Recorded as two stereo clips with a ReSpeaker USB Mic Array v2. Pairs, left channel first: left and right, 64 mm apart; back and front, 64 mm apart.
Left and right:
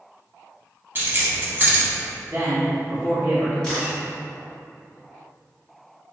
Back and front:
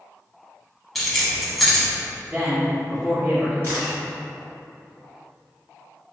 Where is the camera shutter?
20° left, 1.6 m.